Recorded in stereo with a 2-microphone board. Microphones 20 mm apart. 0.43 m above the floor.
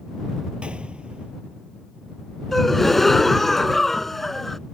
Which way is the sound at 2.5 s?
15° left (ahead or behind).